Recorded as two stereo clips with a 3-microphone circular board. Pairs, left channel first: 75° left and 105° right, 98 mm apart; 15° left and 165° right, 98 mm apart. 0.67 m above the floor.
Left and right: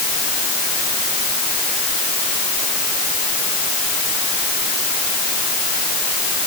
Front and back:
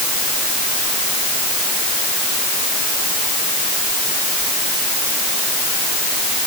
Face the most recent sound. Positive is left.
No sound to turn to.